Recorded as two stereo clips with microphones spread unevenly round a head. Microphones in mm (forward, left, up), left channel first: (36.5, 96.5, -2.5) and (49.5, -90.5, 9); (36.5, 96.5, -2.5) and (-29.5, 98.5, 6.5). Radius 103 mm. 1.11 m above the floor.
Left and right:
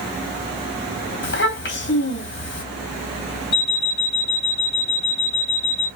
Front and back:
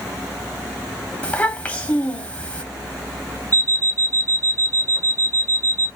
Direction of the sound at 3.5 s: 145° left.